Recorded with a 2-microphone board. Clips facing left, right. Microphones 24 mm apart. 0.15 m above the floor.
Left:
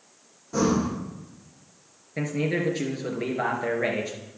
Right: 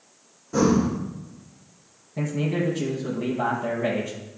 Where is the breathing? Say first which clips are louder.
Right 3 dB; 5° left (ahead or behind), 3 m.